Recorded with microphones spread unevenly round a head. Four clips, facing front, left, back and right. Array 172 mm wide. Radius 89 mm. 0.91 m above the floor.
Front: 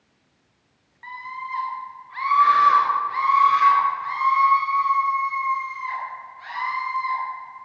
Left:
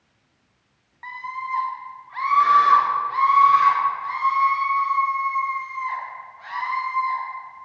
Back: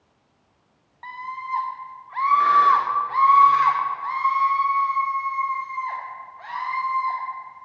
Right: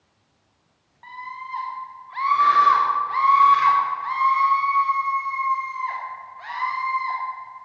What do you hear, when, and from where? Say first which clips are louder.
1.0 s a scream: left 4 dB, back 1 dB; 175° left, 1.8 m; by 7.2 s 145° right, 5.5 m